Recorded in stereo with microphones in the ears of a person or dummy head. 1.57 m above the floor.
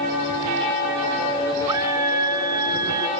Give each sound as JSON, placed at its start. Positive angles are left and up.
{"t": 1.7, "sound": "a scream", "side_deg": -20}